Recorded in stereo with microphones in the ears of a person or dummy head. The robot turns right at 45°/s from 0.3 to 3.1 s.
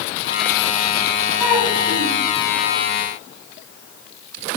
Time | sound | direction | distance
1.4 | a child speaking | 165° right | 8.5 m